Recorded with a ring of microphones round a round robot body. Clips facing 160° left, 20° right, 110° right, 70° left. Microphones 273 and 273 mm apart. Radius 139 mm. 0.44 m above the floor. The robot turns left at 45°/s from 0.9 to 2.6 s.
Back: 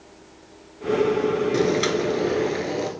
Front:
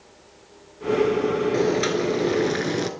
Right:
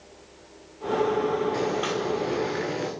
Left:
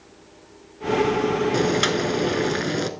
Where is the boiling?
85° left, 1.0 m; by 2.9 s 40° left, 1.0 m.